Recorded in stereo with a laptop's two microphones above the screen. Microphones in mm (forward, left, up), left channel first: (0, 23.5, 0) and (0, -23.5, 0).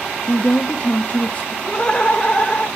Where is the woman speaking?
35° left (ahead or behind), 0.5 m.